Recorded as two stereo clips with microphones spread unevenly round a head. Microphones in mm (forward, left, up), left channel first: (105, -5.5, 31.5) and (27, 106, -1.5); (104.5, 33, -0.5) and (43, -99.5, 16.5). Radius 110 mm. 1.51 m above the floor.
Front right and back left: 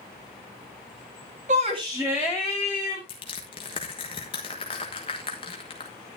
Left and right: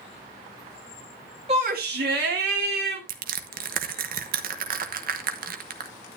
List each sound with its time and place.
1.5 s a shout: straight behind, 1.3 m; by 3.0 s 135° right, 2.5 m
3.1 s crushing: 115° right, 1.1 m